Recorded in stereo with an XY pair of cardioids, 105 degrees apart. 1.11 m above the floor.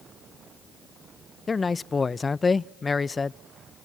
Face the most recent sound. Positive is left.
turn(degrees=25)